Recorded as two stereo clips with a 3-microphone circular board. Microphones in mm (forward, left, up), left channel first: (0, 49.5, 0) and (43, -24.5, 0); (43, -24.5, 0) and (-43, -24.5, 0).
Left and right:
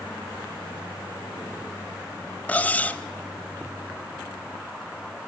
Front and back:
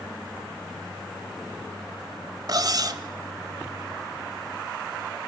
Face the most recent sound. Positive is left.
turn(degrees=-175)